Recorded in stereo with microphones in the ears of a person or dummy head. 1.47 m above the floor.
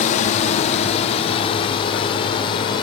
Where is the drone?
40° left (ahead or behind); by 2.8 s 20° left (ahead or behind).